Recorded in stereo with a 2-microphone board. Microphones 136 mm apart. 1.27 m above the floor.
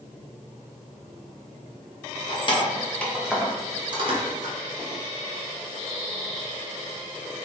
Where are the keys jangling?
45° left (ahead or behind), 0.7 m; by 4.5 s 50° right (ahead or behind), 0.9 m.